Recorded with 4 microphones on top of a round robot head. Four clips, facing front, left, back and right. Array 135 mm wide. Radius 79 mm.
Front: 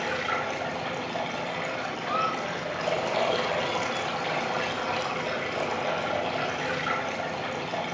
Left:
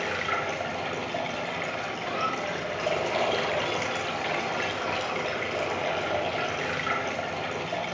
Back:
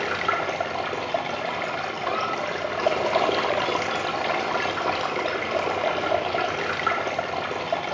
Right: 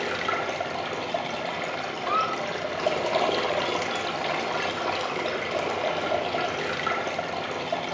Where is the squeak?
75° right, 5.5 m.